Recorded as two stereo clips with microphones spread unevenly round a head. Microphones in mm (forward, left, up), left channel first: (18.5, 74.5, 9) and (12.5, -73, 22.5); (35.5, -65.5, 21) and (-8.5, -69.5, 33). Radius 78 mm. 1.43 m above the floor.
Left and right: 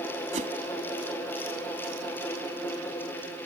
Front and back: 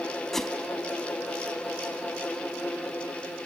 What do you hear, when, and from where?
0.3 s a whoosh: 90° right